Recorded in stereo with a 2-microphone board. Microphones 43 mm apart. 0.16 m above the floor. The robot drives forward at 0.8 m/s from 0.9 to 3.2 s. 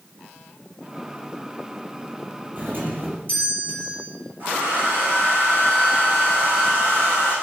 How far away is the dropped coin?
I don't hear a dropped coin.